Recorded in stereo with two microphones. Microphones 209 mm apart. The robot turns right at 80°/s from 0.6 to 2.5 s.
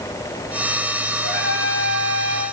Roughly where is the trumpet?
Behind right.